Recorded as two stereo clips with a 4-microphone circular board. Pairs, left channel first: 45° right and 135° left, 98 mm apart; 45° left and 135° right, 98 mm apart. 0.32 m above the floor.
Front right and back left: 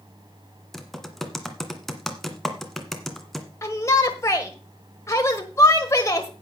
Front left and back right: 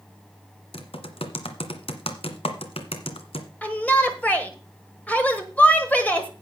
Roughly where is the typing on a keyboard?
Ahead left.